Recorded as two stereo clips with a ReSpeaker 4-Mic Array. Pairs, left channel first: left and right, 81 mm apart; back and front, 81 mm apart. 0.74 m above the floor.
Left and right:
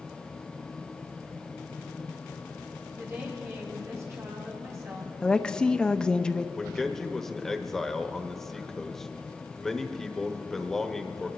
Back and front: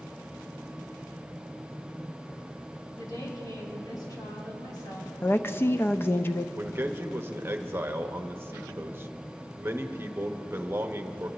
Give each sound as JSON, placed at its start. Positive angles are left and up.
{"t": 3.0, "sound": "a woman speaking", "azimuth_deg": -145, "distance_m": 5.0}
{"t": 5.2, "sound": "a woman speaking", "azimuth_deg": 160, "distance_m": 0.6}
{"t": 6.6, "sound": "a man speaking", "azimuth_deg": 10, "distance_m": 1.0}